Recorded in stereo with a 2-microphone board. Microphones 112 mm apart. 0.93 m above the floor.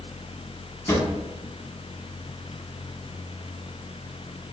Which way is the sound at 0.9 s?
25° left (ahead or behind).